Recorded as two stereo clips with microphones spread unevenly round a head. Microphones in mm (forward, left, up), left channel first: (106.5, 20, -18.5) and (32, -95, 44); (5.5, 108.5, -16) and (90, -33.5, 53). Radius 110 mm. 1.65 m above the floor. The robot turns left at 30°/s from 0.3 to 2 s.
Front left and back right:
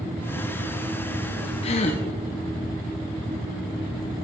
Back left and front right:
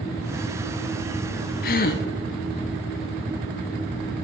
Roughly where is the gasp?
Behind left.